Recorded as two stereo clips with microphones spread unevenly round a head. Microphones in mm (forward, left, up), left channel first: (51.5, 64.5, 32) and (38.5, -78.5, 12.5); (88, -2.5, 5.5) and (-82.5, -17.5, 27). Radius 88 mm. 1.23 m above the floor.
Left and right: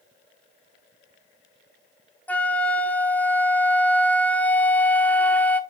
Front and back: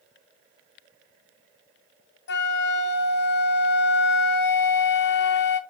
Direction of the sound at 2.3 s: Straight ahead.